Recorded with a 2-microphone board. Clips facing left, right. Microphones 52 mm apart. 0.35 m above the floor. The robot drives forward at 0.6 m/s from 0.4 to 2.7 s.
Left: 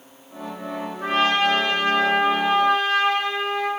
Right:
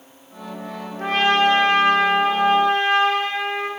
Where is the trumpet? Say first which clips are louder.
Right 3 dB; 60° right (ahead or behind), 1.1 m; by 3.7 s 30° right (ahead or behind), 1.8 m.